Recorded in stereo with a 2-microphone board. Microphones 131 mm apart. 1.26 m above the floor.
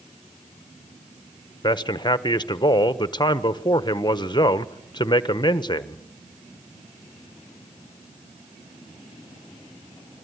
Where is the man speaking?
35° left (ahead or behind), 1.2 m.